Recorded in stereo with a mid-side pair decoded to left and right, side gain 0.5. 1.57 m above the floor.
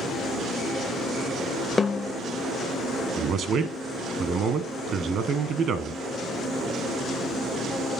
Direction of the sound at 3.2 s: 55° right.